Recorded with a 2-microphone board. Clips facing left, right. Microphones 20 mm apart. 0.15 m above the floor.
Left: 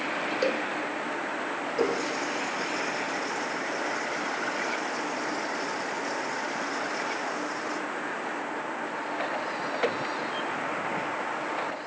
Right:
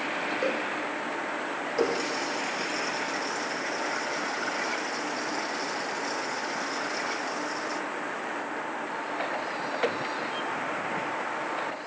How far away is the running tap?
About 1.8 m.